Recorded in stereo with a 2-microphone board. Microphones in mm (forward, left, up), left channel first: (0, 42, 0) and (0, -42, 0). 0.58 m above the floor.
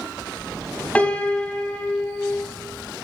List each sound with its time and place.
0.9 s a piano: 15° left (ahead or behind), 1.4 m